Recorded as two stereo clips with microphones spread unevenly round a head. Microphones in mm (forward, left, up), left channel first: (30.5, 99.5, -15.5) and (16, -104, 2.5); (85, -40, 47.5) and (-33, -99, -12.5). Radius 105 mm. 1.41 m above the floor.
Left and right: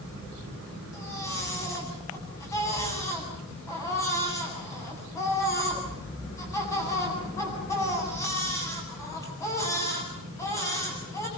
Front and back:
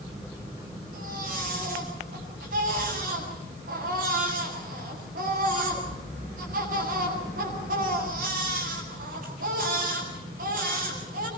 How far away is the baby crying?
About 8.5 m.